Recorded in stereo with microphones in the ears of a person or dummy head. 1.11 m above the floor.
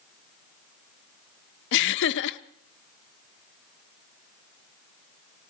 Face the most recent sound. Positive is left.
turn(degrees=65)  # may be behind; listen again after turning